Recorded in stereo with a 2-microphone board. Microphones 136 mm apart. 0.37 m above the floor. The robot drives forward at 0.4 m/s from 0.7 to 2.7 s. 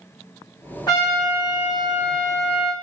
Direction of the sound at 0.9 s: 30° left (ahead or behind).